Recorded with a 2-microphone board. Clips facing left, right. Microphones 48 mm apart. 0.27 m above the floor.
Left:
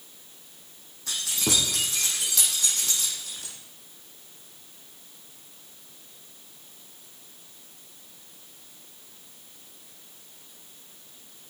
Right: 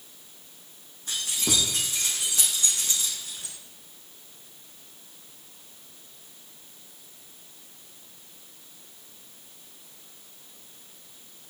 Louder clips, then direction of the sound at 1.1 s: Left 1 dB; 85° left.